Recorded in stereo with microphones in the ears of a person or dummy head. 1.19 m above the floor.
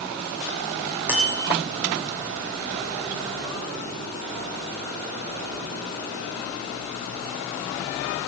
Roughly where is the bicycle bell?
Centre.